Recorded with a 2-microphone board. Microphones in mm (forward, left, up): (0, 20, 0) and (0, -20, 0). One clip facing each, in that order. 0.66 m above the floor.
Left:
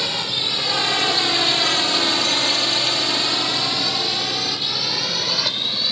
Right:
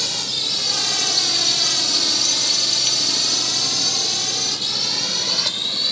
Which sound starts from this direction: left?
A drone, at 0.0 s.